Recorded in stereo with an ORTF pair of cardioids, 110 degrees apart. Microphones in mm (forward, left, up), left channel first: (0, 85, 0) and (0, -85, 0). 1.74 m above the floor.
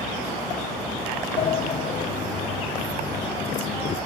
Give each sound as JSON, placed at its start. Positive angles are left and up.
{"t": 1.4, "sound": "a sliding door", "azimuth_deg": 35, "distance_m": 0.5}